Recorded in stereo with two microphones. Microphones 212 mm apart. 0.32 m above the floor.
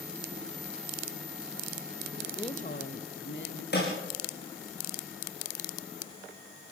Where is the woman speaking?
15° left (ahead or behind), 0.8 m; by 3.6 s 65° left (ahead or behind), 2.5 m.